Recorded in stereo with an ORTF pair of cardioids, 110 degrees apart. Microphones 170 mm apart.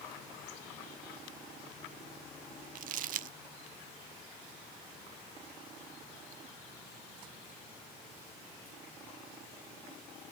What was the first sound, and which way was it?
Crumpling, 55° right.